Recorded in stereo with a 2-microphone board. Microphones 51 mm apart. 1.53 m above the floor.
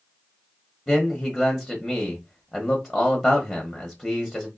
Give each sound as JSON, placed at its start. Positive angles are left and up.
{"t": 0.9, "sound": "a man speaking", "side_deg": 15, "distance_m": 0.8}